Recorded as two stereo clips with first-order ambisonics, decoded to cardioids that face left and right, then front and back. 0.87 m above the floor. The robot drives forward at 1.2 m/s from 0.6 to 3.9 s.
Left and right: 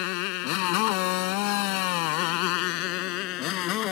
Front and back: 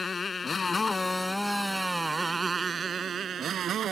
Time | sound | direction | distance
0.0 | a motorcycle | 80° left | ?